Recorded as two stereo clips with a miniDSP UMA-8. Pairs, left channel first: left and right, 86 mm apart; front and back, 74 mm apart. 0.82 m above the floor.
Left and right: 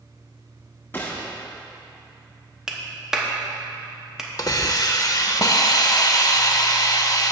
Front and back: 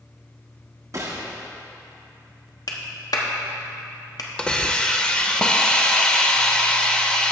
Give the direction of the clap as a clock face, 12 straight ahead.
12 o'clock.